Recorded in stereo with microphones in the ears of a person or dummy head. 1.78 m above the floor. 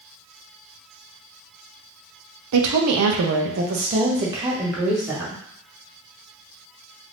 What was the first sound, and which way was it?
A woman speaking, 85° right.